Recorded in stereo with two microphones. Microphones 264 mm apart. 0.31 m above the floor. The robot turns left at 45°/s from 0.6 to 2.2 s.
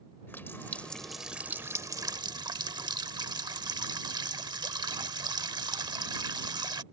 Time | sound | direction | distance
0.3 | a running tap | 10° left (ahead or behind) | ?